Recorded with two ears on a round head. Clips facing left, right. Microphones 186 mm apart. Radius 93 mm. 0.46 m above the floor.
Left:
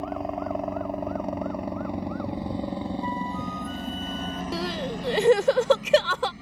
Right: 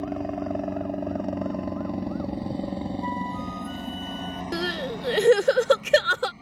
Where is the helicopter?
20° right (ahead or behind); by 6.4 s 20° left (ahead or behind).